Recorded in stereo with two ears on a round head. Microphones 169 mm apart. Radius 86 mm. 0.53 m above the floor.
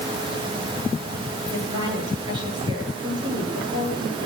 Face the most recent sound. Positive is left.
turn(degrees=-25)  # may be behind; listen again after turning